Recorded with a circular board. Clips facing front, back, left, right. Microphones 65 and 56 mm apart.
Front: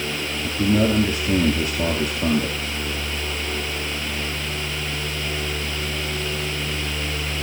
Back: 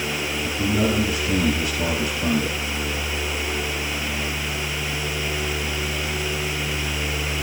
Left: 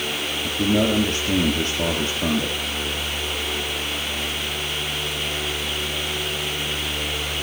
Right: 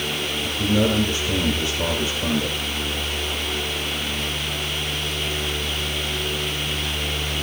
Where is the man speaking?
50° left, 4 m.